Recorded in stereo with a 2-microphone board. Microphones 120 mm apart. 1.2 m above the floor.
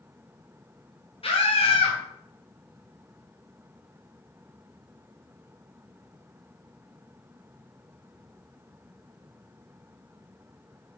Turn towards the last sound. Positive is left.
turn(degrees=50)  # may be behind; listen again after turning